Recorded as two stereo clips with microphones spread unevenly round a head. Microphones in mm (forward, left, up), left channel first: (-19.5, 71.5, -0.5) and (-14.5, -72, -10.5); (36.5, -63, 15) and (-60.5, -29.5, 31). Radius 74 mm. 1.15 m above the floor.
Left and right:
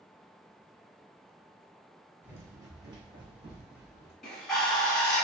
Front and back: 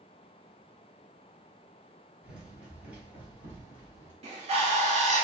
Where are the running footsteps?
155° right, 1.2 m; by 4.1 s 135° right, 2.5 m.